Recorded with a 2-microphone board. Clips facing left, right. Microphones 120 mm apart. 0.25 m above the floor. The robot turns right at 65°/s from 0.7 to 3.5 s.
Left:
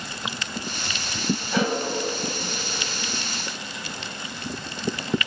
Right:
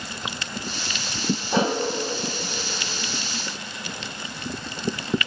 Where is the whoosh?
30° right (ahead or behind), 0.8 m; by 1.8 s 20° right (ahead or behind), 0.8 m.